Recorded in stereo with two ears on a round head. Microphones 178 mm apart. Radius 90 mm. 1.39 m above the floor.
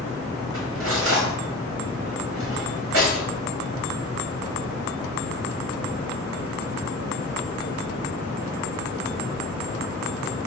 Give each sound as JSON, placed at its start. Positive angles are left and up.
{"t": 0.5, "sound": "cutlery clinking", "side_deg": -80, "distance_m": 4.0}